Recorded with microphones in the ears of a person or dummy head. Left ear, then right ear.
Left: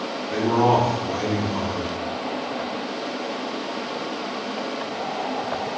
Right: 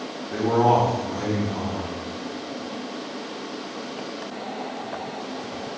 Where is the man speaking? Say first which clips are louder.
Even; 10° left (ahead or behind), 0.6 m.